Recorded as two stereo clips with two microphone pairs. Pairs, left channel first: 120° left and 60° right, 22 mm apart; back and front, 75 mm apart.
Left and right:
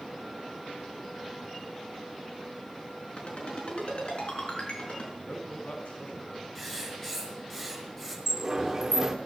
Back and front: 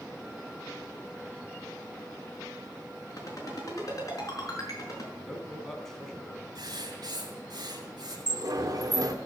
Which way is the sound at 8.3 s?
5° right.